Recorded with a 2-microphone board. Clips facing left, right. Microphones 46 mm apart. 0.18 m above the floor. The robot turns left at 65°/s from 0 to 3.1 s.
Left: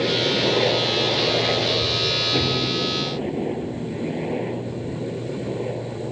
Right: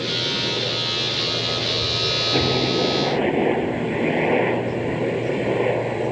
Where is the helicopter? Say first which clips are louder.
Left 4 dB; 135° left; by 6.1 s 70° right.